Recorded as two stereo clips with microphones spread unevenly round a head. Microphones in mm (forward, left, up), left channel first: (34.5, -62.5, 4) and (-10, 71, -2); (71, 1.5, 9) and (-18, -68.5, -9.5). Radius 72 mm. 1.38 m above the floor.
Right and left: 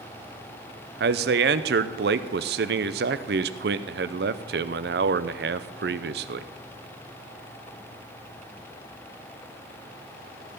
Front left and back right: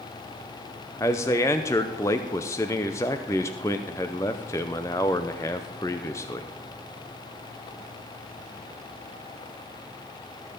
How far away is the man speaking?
About 0.6 m.